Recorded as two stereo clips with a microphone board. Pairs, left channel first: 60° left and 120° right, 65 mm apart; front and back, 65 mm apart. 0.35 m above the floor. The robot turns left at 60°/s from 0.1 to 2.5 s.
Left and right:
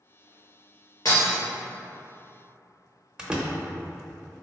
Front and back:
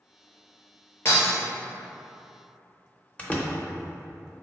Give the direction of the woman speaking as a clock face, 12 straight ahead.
No woman speaking in this recording.